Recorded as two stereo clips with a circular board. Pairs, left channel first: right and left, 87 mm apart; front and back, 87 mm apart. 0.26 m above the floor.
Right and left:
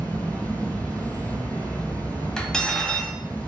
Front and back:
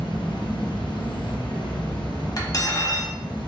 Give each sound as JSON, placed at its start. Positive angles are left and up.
{"t": 0.0, "sound": "an insect", "azimuth_deg": -15, "distance_m": 1.3}
{"t": 2.4, "sound": "cutlery clinking", "azimuth_deg": -10, "distance_m": 1.0}